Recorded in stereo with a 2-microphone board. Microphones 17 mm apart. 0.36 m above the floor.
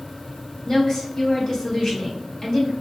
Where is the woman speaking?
40° left (ahead or behind), 1.1 m.